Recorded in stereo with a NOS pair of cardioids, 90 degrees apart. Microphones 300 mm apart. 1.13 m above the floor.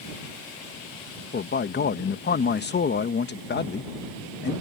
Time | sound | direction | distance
1.3 | a man speaking | 35° left | ?